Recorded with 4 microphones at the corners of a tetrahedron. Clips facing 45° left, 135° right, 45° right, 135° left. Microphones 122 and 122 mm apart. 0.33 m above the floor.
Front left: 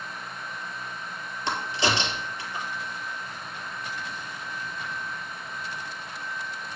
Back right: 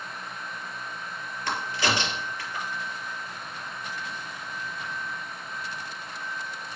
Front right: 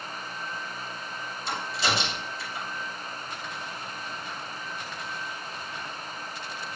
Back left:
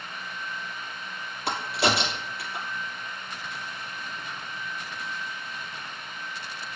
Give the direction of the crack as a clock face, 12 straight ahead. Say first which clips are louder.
Front left 1 dB, back left 4 dB; 8 o'clock.